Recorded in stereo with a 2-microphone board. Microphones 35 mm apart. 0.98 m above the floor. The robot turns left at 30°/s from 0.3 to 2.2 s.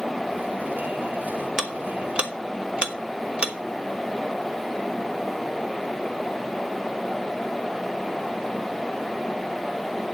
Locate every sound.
1.6 s ticking: 15° right (ahead or behind), 1.2 m; by 3.5 s 35° right (ahead or behind), 1.2 m